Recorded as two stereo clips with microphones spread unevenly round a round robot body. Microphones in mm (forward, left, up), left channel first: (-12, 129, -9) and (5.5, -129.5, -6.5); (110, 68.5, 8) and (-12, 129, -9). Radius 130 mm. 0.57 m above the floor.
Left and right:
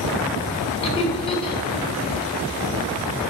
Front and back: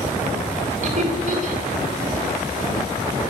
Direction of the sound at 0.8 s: 160° left.